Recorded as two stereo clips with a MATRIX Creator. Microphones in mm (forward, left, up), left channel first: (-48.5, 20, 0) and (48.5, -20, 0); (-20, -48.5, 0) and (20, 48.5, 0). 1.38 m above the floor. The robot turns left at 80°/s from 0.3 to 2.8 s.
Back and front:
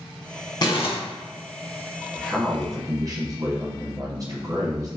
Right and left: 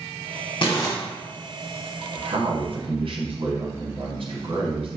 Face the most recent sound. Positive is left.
turn(degrees=35)